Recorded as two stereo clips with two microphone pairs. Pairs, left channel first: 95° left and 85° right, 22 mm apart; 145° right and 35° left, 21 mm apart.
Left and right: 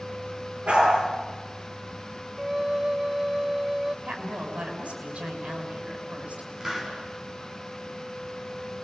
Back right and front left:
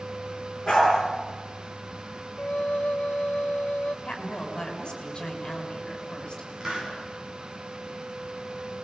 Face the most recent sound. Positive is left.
turn(degrees=-20)